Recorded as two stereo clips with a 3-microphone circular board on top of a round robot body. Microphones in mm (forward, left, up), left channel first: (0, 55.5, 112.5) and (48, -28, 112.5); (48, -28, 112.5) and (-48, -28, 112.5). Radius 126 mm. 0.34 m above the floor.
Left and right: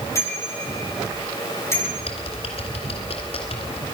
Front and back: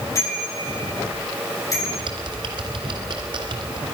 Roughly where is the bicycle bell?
Ahead left.